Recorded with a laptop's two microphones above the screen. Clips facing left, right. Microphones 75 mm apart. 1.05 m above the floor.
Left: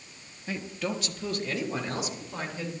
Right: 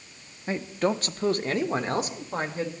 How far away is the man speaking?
About 0.8 m.